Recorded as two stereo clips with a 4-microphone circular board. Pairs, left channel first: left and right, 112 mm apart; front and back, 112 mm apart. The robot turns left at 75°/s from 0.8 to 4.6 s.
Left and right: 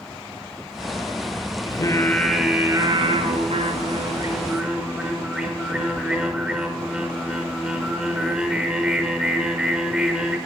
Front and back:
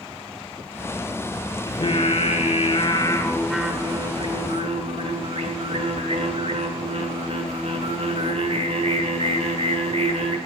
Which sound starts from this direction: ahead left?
Singing, at 1.7 s.